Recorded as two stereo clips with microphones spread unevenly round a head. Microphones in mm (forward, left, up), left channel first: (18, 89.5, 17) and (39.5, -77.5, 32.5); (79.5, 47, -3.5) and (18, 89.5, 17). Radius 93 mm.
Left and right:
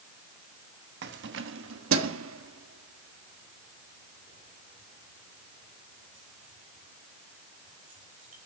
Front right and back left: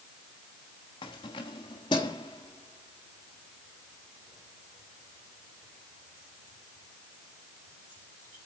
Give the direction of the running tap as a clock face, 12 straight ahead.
No running tap in this recording.